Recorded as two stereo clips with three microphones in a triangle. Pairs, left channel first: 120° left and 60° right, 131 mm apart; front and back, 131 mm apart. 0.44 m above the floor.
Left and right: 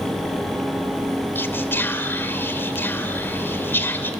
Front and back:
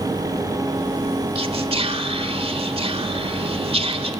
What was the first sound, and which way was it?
Whispering, 170° right.